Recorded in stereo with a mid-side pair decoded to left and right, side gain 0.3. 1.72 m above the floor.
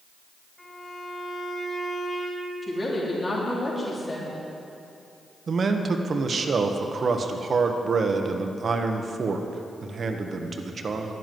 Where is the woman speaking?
40° left, 3.5 m.